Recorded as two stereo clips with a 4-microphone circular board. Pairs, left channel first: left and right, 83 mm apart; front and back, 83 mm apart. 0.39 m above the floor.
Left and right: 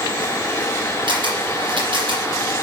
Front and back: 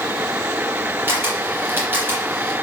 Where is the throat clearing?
I don't hear throat clearing.